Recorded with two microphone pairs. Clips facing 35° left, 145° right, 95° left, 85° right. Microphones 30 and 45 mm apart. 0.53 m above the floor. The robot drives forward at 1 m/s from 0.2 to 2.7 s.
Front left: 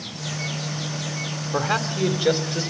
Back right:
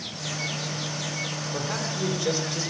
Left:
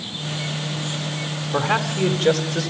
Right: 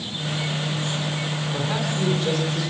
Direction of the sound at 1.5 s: 70° left.